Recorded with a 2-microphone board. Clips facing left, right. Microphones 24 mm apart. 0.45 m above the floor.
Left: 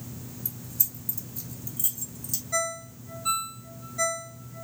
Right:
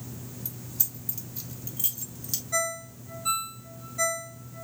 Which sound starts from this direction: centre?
A ringtone, at 2.5 s.